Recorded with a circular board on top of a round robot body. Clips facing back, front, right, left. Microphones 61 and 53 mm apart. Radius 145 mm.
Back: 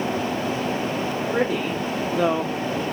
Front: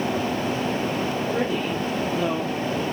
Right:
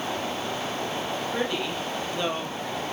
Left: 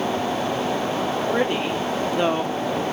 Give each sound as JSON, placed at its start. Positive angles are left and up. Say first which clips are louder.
{"t": 1.3, "sound": "a woman speaking", "louder": "back 1 dB, left 6 dB", "azimuth_deg": 140, "distance_m": 3.0}